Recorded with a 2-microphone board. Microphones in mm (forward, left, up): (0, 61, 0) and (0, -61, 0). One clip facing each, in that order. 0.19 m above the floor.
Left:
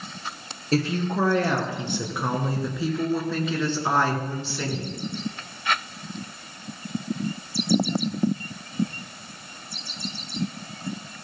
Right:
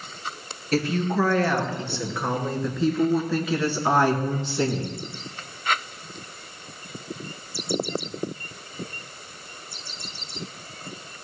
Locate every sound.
0.7 s a woman speaking: 30° left (ahead or behind), 3 m; by 5.0 s 30° right (ahead or behind), 2 m